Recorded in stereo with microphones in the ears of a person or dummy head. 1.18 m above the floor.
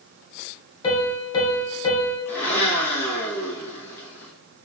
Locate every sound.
0.8 s a piano: 25° left (ahead or behind), 0.8 m
2.3 s a blender: 10° left (ahead or behind), 1.4 m